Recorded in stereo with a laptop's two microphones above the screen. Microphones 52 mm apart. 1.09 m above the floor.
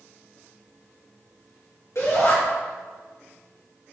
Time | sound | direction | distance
1.9 | a shout | 70° left (ahead or behind) | 2.5 m